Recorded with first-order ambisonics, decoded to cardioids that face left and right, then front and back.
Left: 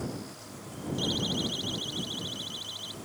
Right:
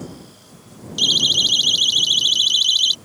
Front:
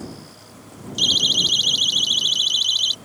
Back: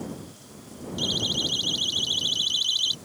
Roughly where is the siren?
Ahead right.